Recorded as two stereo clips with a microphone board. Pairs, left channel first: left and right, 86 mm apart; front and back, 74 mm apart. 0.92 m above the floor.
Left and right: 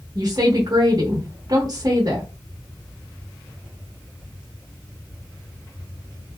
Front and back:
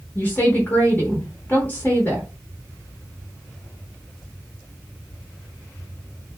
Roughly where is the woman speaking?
Ahead right.